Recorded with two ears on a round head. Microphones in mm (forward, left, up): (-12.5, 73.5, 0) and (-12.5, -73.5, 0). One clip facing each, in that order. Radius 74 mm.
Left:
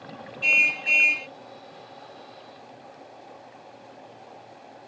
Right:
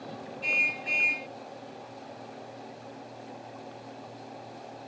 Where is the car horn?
30° left (ahead or behind).